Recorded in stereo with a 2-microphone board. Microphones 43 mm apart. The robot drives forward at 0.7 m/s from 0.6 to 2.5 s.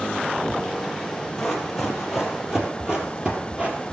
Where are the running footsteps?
5° left (ahead or behind), 2.5 m; by 3.9 s 35° right (ahead or behind), 2 m.